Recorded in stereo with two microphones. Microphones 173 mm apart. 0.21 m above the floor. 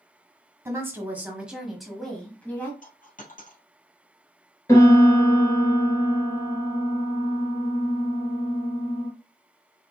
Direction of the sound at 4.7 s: 20° left (ahead or behind).